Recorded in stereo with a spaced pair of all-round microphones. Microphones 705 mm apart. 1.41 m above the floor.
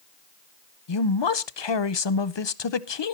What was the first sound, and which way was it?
A man speaking, 40° left (ahead or behind).